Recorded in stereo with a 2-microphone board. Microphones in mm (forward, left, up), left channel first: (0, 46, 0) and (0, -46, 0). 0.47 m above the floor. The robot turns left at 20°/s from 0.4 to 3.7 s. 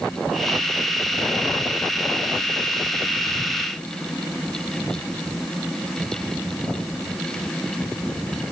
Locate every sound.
Only background noise.